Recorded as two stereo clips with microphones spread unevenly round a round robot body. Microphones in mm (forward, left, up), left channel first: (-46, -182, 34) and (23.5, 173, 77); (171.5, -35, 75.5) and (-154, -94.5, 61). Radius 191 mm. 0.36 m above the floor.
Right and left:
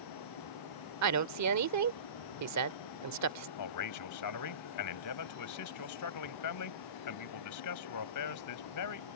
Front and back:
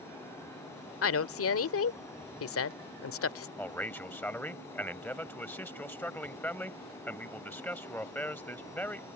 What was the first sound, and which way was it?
A woman speaking, 45° left.